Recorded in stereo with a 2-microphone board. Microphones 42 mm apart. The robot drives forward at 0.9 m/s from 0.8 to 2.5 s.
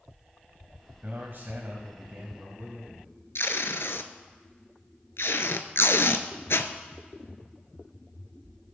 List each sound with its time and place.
1.0 s a man speaking: 55° right (ahead or behind), 2.0 m; by 3.1 s 45° right (ahead or behind), 2 m
3.4 s tape being pulled: 85° left, 0.8 m